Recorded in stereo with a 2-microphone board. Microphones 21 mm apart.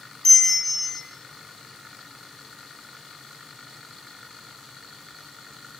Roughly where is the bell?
Centre.